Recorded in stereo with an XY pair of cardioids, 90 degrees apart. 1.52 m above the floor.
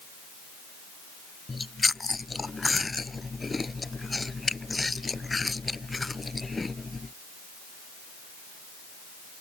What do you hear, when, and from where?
1.5 s chewing: 25° left